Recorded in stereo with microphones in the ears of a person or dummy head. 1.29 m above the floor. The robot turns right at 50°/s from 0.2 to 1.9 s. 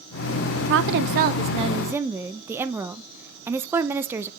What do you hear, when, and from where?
0.6 s a woman speaking: 70° right, 0.6 m; by 4.3 s 5° right, 0.6 m